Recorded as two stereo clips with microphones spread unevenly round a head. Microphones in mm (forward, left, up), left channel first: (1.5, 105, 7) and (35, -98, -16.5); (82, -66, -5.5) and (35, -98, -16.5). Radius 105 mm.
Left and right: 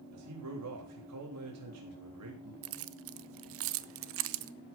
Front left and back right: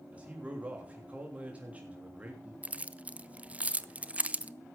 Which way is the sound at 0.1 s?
80° right.